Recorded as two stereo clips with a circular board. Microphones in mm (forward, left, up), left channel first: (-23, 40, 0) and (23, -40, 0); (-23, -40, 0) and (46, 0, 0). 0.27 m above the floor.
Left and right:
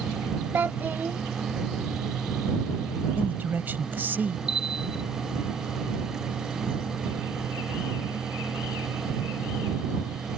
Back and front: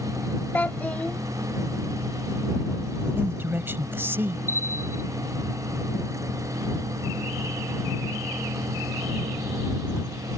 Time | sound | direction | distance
0.5 | a child speaking | 100° right | ?
3.2 | a man speaking | 5° right | ?
4.5 | a bell | 85° left | ?